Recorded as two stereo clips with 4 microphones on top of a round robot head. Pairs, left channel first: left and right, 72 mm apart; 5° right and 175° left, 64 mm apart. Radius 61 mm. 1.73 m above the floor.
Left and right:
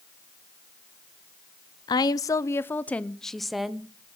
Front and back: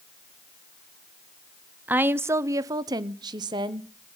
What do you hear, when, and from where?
1.9 s a woman speaking: 115° left, 0.9 m; by 4.2 s 165° right, 1.3 m